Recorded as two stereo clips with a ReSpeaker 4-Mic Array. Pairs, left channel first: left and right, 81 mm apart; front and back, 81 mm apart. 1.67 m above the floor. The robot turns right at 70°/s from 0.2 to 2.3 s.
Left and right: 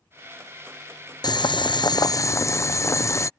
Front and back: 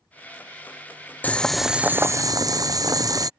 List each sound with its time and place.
1.2 s boiling: 70° left; by 3.3 s 140° left